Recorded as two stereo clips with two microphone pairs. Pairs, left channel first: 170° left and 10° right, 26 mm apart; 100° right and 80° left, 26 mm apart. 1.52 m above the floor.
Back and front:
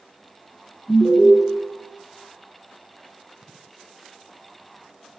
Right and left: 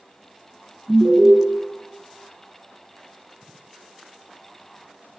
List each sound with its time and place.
0.9 s an alarm: 100° left, 1.2 m